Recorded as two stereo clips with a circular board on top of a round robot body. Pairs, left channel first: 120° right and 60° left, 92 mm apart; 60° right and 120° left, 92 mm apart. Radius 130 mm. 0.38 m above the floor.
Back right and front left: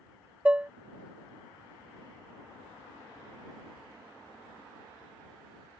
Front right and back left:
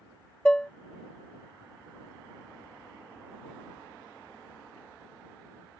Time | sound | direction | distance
0.5 | dishes clattering | 5° left | ?